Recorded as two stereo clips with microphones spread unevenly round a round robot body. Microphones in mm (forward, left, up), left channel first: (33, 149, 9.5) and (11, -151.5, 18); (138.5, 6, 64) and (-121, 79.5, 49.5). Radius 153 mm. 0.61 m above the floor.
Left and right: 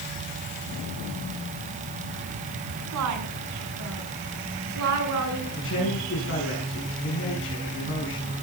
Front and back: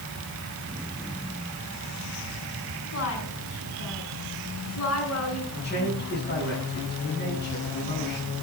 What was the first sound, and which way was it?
A woman speaking, 60° right.